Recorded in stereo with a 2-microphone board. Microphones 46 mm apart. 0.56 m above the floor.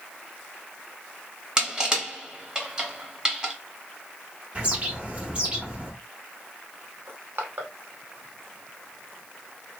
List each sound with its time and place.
1.6 s crushing: 20° right (ahead or behind), 0.9 m
4.5 s a bird: 30° right (ahead or behind), 0.8 m
7.1 s crushing: 50° right (ahead or behind), 0.8 m